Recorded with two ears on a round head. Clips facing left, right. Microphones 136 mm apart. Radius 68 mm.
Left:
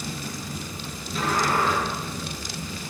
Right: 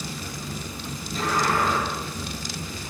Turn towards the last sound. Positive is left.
turn(degrees=50)  # may be behind; listen again after turning